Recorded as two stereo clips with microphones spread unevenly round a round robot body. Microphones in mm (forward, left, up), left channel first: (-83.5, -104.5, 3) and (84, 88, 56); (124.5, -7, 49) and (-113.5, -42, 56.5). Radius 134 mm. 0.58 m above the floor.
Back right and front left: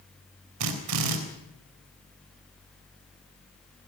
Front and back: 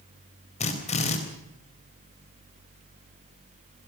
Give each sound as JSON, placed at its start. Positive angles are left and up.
{"t": 0.6, "sound": "a drill", "azimuth_deg": 70, "distance_m": 4.0}